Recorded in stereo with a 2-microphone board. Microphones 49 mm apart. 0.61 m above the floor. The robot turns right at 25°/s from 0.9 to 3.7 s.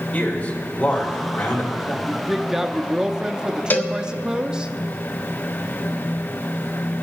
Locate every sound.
0.1 s a man speaking: 30° left (ahead or behind), 2.5 m; by 1.9 s 50° left (ahead or behind), 2.5 m
2.0 s a woman speaking: centre (ahead or behind), 0.6 m; by 4.7 s 15° right (ahead or behind), 0.6 m
3.7 s a cowbell: 35° left (ahead or behind), 0.7 m